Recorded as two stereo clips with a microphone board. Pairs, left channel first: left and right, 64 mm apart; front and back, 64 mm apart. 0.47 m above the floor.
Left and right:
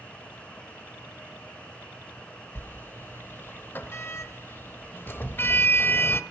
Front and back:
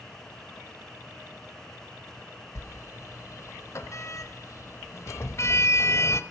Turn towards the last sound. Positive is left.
turn(degrees=35)